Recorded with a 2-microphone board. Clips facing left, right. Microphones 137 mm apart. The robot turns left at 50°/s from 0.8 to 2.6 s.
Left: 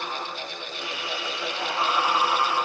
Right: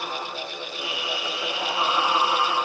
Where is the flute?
No flute in this recording.